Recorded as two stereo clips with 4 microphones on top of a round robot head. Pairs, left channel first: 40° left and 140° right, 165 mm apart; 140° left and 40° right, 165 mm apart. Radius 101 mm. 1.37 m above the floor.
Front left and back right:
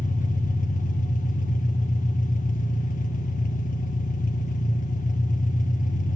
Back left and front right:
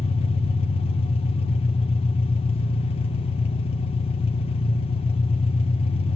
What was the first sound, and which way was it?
An engine running, 85° left.